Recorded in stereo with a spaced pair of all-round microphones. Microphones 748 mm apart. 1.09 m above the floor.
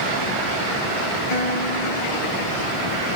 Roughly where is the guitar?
Left.